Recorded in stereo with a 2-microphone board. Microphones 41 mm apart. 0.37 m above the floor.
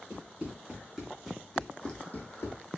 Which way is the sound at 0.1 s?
25° right (ahead or behind).